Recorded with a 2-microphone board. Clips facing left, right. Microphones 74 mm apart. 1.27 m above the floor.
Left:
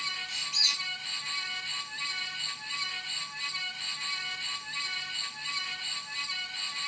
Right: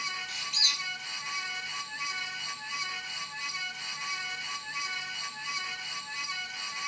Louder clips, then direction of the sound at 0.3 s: Right 1 dB; 50° right (ahead or behind).